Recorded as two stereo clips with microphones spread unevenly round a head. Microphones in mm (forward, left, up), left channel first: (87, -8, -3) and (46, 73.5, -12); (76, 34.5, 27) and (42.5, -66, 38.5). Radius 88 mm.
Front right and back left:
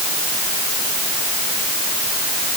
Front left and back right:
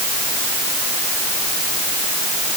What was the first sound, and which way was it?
Only background noise.